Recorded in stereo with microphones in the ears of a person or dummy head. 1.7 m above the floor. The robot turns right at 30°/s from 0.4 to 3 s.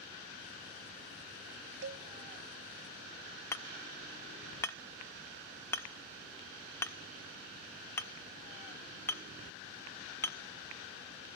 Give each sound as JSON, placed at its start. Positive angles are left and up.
{"t": 1.8, "sound": "a cowbell", "side_deg": -80, "distance_m": 0.7}
{"t": 3.5, "sound": "hammering", "side_deg": 10, "distance_m": 0.7}